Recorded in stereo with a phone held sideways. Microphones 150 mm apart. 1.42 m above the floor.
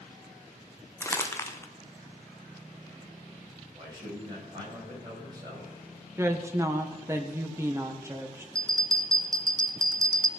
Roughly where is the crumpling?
Centre.